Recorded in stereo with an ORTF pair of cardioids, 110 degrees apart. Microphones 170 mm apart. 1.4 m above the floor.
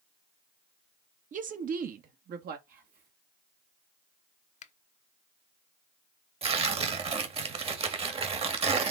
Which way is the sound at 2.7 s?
55° right.